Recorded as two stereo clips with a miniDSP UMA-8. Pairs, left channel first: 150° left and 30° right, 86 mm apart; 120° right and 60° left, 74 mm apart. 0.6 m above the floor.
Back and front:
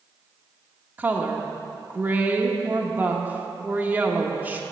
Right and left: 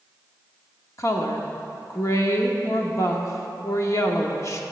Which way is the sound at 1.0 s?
90° right.